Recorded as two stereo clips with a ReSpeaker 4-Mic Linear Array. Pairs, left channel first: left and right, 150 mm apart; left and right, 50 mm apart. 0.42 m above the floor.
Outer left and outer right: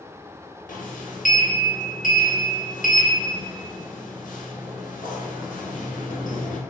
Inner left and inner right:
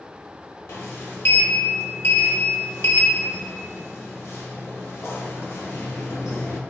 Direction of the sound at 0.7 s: 65° left (ahead or behind).